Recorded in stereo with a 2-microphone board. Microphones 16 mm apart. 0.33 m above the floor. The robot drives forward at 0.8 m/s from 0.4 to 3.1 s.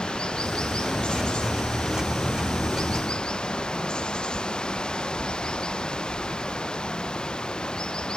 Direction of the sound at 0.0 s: 65° left (ahead or behind).